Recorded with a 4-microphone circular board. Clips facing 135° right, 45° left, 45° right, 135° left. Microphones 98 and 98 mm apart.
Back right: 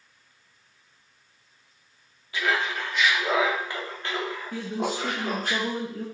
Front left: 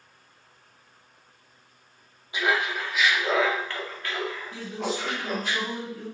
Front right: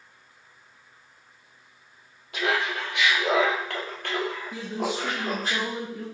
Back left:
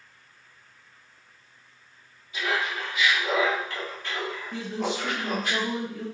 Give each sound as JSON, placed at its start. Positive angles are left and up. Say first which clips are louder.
{"t": 2.3, "sound": "laughter", "louder": "front left 1 dB, front right 2 dB", "azimuth_deg": -25, "distance_m": 1.6}
{"t": 4.5, "sound": "a man speaking", "louder": "back right 5 dB, back left 3 dB", "azimuth_deg": -125, "distance_m": 1.4}